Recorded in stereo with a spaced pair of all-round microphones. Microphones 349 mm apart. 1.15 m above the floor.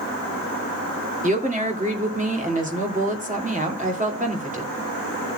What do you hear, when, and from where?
1.2 s a woman speaking: 25° right (ahead or behind), 2.5 m